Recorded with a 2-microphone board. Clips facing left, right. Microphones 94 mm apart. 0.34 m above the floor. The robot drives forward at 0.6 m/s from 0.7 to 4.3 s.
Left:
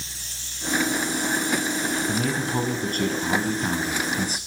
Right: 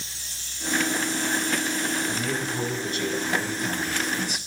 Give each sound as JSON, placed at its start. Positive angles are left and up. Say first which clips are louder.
{"t": 2.1, "sound": "a man speaking", "louder": "left 3 dB", "side_deg": 60, "distance_m": 2.0}